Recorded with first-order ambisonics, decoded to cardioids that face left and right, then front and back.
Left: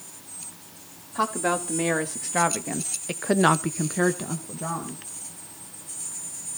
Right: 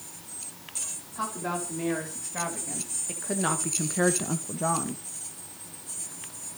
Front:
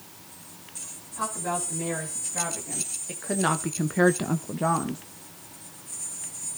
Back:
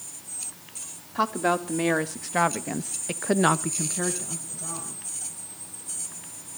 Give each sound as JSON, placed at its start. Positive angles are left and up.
{"t": 1.1, "sound": "a woman speaking", "azimuth_deg": 145, "distance_m": 2.5}